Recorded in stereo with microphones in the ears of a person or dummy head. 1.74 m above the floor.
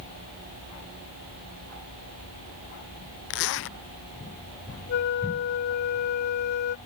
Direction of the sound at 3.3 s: 60° left (ahead or behind).